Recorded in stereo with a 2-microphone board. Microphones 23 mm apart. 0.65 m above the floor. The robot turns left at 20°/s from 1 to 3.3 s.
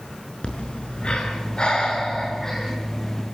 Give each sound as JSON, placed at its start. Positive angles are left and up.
{"t": 0.4, "sound": "breathing", "azimuth_deg": 50, "distance_m": 6.0}